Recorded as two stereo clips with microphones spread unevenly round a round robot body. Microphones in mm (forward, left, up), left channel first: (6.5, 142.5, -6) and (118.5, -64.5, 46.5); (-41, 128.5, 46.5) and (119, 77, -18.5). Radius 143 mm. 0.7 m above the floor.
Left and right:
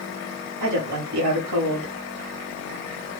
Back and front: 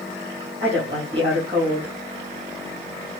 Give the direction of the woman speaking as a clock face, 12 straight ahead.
3 o'clock.